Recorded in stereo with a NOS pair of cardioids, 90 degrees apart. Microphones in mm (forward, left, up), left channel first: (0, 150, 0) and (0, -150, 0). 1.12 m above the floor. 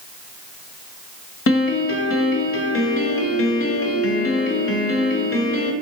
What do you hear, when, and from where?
1.5 s a piano: 50° left, 0.6 m